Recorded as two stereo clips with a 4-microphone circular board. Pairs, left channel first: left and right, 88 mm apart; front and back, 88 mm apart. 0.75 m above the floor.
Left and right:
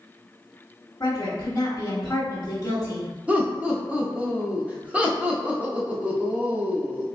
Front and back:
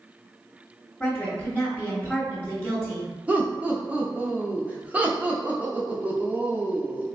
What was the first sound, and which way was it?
A woman speaking, 60° left.